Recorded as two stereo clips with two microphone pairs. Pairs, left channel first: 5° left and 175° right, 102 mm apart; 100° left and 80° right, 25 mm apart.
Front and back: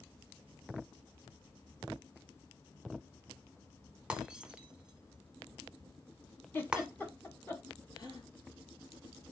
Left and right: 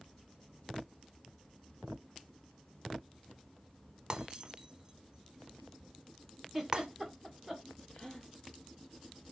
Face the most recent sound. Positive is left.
turn(degrees=45)